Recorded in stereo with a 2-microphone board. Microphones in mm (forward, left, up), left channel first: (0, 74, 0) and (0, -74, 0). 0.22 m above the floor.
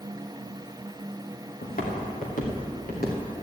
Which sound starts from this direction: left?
Footsteps, at 1.6 s.